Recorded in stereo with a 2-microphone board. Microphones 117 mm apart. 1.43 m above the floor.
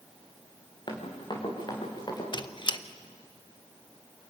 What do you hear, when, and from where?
0.9 s running footsteps: 40° left (ahead or behind), 4.5 m; by 2.2 s 35° left (ahead or behind), 6 m
2.3 s a squeak: 40° left (ahead or behind), 0.7 m